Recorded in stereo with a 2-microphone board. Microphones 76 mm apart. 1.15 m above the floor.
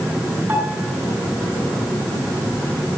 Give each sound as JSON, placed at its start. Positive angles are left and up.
{"t": 0.5, "sound": "a piano", "side_deg": -25, "distance_m": 9.5}